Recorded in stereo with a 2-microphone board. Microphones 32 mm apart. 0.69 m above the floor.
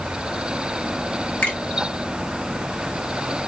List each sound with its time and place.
1.4 s a finger snap: 80° left, 1.6 m